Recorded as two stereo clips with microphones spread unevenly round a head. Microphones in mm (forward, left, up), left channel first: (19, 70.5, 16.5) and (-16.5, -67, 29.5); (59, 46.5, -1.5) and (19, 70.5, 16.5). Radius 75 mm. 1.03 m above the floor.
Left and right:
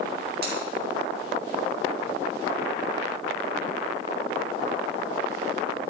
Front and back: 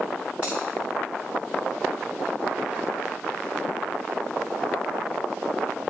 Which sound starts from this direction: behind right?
Scissors, at 0.4 s.